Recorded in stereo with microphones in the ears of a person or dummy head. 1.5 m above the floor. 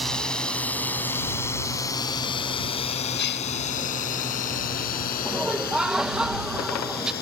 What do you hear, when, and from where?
0.0 s a drone: 10° left (ahead or behind); by 7.2 s 60° left (ahead or behind)
3.2 s a gasp: 65° left (ahead or behind)
5.2 s laughter: 5° right (ahead or behind)